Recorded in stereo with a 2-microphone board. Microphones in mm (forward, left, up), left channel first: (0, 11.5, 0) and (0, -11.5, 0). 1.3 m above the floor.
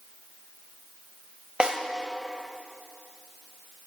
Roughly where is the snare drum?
Right.